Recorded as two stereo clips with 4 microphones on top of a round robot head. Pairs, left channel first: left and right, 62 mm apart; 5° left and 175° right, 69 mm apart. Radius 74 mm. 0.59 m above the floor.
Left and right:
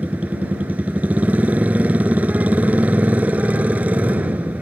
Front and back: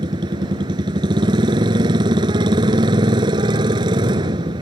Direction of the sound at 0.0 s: 160° right.